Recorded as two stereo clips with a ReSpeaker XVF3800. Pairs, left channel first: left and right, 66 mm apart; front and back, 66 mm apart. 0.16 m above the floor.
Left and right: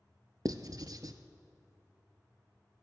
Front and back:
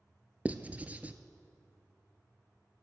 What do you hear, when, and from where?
0.5 s writing: 115° right, 0.7 m